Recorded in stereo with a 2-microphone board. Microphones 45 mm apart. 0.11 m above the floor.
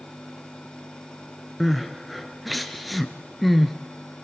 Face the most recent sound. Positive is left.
turn(degrees=0)  # may be behind; listen again after turning